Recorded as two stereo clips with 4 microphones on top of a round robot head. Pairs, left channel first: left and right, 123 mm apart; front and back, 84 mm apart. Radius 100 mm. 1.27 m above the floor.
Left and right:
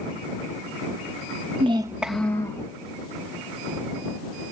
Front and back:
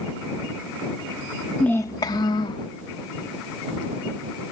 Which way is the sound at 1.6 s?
85° right.